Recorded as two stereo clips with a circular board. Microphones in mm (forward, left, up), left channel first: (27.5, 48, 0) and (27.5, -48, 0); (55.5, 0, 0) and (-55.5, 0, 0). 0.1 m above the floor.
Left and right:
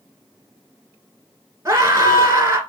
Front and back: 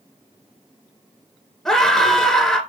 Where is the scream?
80° right, 1.9 m.